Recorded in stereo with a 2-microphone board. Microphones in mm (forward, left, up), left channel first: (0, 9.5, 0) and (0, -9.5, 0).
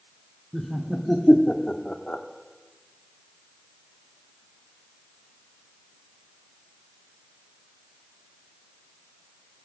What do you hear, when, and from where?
0.5 s laughter: centre (ahead or behind), 2 m; by 2.2 s 65° left (ahead or behind), 1.5 m